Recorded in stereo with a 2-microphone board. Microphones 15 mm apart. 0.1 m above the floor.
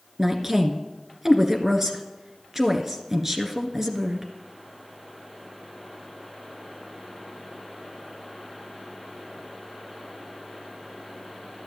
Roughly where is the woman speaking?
Right.